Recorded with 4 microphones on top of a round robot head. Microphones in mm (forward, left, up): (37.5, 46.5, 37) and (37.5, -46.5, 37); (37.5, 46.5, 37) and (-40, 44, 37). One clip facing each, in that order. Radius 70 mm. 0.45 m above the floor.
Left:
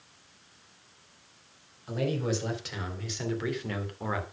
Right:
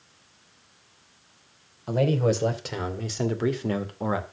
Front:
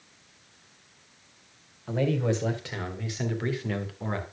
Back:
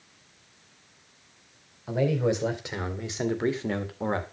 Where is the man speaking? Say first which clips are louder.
Right 7 dB, back 2 dB; 100° right, 2 m; by 4.3 s 145° right, 1.8 m.